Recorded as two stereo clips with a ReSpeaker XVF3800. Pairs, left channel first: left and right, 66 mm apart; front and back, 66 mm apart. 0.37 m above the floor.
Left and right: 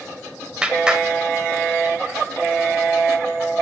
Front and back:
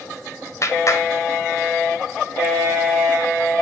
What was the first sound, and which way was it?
A clap, 20° right.